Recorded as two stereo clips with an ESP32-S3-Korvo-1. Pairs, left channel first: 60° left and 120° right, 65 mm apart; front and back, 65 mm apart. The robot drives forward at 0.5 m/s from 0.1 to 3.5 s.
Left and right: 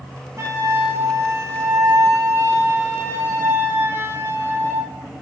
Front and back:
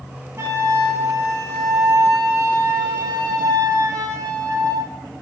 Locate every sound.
0.4 s a flute: 150° right, 1.8 m; by 4.9 s 165° right, 3 m